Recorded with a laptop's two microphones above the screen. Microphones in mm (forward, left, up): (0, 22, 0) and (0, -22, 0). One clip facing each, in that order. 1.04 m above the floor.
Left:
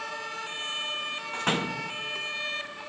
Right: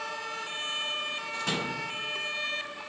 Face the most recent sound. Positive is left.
turn(degrees=40)  # may be behind; listen again after turning